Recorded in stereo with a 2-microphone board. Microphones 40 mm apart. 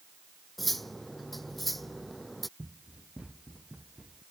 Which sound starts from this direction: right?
Running footsteps, at 2.6 s.